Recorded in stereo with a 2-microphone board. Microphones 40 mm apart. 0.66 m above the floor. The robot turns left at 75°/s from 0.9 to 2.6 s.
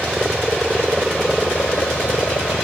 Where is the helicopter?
160° right; by 2.6 s 75° left.